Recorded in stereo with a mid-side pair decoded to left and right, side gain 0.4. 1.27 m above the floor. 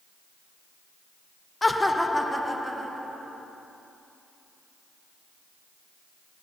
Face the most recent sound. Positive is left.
turn(degrees=-10)